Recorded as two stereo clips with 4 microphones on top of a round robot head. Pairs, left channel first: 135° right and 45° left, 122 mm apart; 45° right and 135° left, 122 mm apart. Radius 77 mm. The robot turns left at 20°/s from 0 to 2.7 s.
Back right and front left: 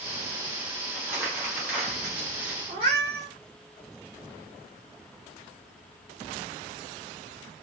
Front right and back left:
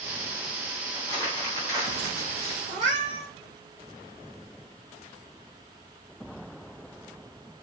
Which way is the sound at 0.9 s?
5° right.